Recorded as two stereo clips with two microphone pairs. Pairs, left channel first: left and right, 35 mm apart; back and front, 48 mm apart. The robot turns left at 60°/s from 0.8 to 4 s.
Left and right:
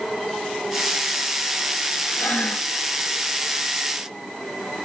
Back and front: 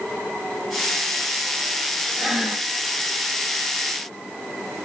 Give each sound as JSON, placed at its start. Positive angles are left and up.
{"t": 2.2, "sound": "breathing", "azimuth_deg": 90, "distance_m": 1.0}